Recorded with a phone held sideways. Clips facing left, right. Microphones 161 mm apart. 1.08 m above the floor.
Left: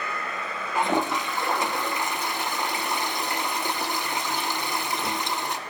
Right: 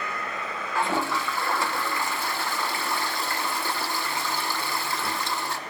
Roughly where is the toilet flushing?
Centre.